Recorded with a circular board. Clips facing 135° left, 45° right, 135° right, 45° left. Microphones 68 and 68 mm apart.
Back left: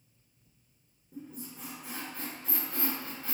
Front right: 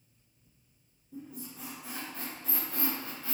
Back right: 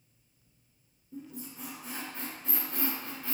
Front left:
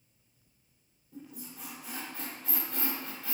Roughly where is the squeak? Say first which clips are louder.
Even, back right 3 dB; behind.